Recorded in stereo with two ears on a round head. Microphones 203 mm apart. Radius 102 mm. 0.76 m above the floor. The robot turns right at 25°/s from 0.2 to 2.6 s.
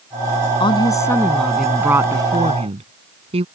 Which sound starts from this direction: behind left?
A woman speaking, at 0.6 s.